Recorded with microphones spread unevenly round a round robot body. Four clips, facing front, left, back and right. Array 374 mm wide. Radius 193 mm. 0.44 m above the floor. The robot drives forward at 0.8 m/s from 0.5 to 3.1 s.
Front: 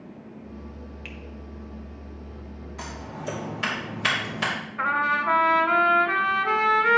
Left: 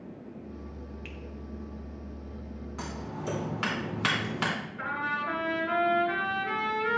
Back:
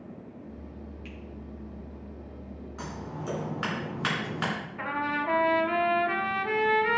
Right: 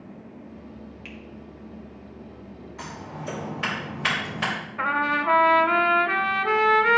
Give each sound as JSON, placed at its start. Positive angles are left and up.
{"t": 1.1, "sound": "a finger snap", "azimuth_deg": -10, "distance_m": 1.6}
{"t": 2.8, "sound": "scissors", "azimuth_deg": 100, "distance_m": 3.5}
{"t": 4.8, "sound": "a trumpet", "azimuth_deg": -70, "distance_m": 0.8}